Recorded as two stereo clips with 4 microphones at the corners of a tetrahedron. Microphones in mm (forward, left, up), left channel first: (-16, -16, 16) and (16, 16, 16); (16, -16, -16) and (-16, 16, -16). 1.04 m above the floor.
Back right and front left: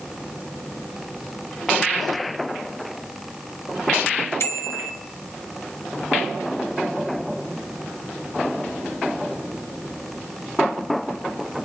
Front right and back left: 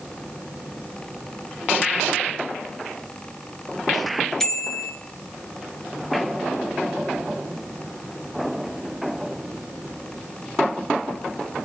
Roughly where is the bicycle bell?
Behind right.